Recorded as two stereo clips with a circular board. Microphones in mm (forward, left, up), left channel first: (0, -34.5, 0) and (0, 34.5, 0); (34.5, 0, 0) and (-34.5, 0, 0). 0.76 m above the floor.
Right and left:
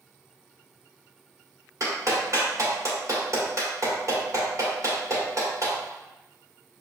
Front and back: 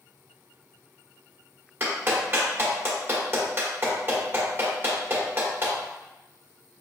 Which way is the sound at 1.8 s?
125° left.